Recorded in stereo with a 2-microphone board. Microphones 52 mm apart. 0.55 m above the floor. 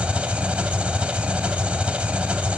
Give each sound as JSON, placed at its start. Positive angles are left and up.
{"t": 0.0, "sound": "an engine running", "side_deg": -25, "distance_m": 0.9}